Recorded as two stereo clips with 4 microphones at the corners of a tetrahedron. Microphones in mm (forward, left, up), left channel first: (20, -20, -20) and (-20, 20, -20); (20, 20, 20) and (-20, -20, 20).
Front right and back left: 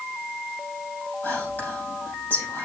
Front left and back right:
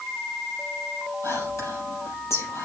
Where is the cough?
I don't hear a cough.